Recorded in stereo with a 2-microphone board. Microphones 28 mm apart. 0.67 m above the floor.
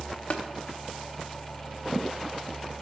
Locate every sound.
0.3 s tapping: 45° left (ahead or behind), 0.5 m